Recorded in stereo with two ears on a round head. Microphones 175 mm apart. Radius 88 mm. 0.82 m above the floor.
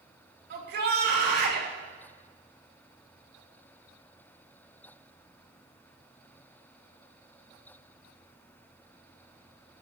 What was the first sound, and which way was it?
A shout, 60° right (ahead or behind).